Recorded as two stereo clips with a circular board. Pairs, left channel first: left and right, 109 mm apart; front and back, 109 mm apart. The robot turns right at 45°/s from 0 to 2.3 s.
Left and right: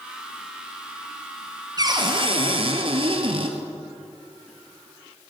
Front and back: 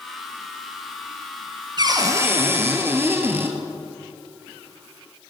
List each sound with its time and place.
1.8 s a cupboard door: 140° right, 1.5 m; by 3.6 s 115° right, 1.5 m